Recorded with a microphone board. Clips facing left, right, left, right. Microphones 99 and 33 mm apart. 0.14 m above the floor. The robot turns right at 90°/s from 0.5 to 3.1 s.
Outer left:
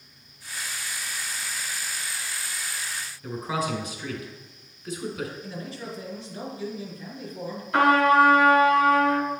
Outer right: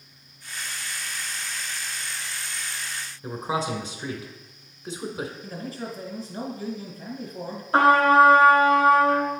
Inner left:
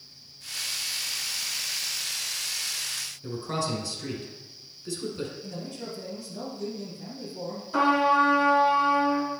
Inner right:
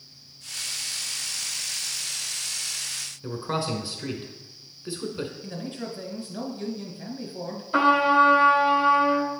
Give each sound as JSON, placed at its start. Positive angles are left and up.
{"t": 3.2, "sound": "a man speaking", "side_deg": -25, "distance_m": 1.2}
{"t": 5.4, "sound": "a man speaking", "side_deg": -40, "distance_m": 1.4}
{"t": 7.7, "sound": "a trumpet", "side_deg": -35, "distance_m": 1.0}